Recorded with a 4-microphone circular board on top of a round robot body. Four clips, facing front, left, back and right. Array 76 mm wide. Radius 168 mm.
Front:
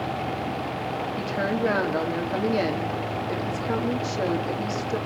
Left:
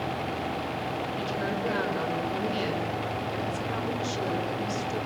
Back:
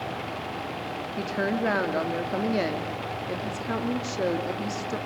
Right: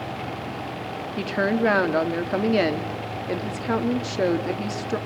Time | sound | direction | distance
1.2 | a woman speaking | 95° right | 2.5 m